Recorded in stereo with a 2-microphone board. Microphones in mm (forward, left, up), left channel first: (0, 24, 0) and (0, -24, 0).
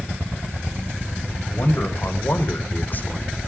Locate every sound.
1.5 s a man speaking: 55° left (ahead or behind), 2.5 m; by 3.4 s 20° left (ahead or behind), 1.5 m